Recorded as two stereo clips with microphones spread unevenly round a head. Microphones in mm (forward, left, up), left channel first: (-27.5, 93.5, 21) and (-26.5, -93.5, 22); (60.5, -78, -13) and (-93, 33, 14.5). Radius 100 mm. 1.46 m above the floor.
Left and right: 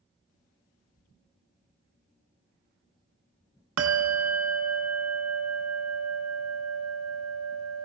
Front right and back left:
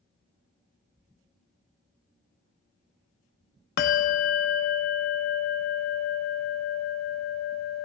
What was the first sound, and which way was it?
A bell, 75° right.